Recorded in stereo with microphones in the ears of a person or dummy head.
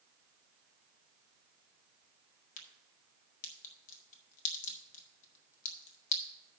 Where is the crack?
45° left (ahead or behind), 1.6 m.